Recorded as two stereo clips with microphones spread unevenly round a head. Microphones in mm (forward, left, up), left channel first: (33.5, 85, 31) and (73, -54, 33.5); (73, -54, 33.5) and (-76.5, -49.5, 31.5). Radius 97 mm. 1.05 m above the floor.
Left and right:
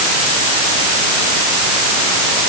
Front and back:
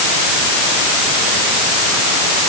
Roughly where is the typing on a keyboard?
No typing on a keyboard in this recording.